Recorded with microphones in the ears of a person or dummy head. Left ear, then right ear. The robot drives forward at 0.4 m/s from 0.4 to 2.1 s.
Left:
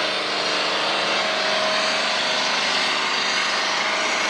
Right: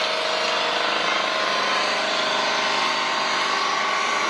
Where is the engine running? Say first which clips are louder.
Even; 65° right (ahead or behind), 0.7 m; by 4.3 s 35° right (ahead or behind), 1.2 m.